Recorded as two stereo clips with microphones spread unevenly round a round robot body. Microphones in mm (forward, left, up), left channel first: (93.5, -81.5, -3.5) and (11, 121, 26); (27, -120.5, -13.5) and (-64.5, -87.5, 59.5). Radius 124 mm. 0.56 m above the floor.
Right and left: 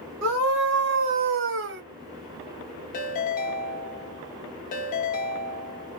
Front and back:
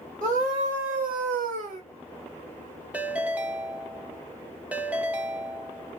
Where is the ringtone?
85° right, 0.7 m.